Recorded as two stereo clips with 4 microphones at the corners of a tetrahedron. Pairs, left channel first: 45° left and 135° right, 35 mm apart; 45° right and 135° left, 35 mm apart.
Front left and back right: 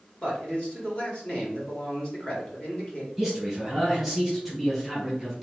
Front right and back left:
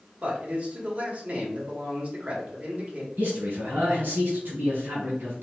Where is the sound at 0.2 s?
95° left, 1.8 m.